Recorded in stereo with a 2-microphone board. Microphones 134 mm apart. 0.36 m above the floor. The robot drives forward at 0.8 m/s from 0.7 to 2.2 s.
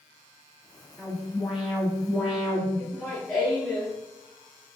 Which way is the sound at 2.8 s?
5° right (ahead or behind).